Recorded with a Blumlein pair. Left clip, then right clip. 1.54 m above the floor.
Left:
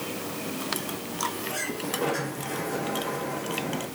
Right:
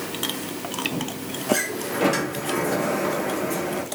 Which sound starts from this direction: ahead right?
A sliding door, at 1.5 s.